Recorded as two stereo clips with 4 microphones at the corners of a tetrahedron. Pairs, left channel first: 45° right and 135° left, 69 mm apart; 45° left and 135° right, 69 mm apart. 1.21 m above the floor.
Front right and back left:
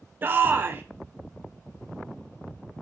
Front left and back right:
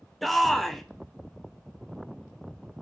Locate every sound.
0.2 s a shout: 130° left, 0.7 m